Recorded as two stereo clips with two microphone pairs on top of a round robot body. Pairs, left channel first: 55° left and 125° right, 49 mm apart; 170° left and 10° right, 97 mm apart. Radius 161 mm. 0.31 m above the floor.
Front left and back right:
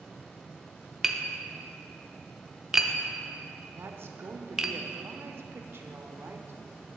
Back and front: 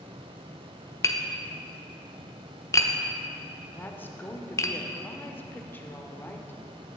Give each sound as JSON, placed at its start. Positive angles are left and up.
{"t": 1.0, "sound": "tapping", "azimuth_deg": 150, "distance_m": 1.1}
{"t": 3.8, "sound": "a woman speaking", "azimuth_deg": -130, "distance_m": 1.2}